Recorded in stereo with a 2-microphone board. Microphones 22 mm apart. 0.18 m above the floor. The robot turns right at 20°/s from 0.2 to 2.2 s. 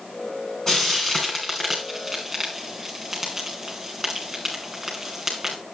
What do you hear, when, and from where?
0.7 s frying: 20° left (ahead or behind), 6.5 m; by 5.6 s 10° right (ahead or behind), 6.5 m